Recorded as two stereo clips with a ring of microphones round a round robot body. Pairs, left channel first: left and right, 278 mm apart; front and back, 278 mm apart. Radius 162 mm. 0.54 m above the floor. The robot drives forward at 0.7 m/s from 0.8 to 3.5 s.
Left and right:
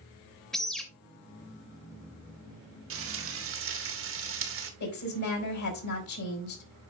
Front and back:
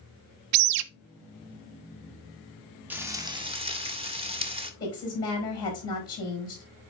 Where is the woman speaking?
75° left, 4.5 m.